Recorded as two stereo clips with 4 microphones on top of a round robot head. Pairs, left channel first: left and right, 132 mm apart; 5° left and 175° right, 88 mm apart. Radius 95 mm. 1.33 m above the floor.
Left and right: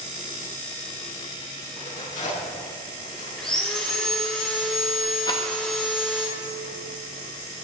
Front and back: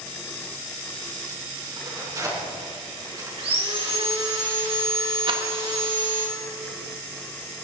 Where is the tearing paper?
135° left, 5.5 m.